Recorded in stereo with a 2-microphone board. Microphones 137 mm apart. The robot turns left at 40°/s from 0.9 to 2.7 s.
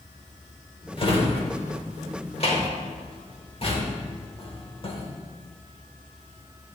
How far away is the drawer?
About 0.9 m.